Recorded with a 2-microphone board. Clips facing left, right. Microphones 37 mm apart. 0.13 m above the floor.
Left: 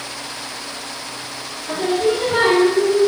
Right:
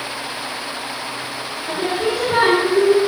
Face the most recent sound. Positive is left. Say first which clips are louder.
# left 3 dB
turn(degrees=-25)  # may be behind; listen again after turning